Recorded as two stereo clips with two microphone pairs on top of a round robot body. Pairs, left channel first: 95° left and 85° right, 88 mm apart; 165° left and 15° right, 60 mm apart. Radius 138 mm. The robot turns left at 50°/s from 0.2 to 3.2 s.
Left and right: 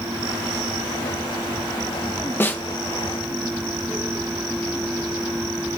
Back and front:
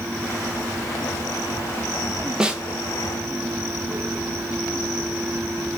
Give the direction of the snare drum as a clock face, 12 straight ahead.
10 o'clock.